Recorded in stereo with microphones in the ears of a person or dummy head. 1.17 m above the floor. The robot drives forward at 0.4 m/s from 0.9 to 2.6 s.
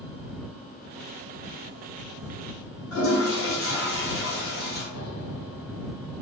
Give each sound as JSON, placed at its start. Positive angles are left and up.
{"t": 2.9, "sound": "a toilet flushing", "side_deg": 70, "distance_m": 1.0}
{"t": 4.9, "sound": "an explosion", "side_deg": 80, "distance_m": 1.9}